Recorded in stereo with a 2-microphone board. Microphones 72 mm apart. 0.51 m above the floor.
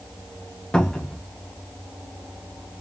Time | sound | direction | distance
0.7 | a cupboard door | 10° left (ahead or behind) | 0.8 m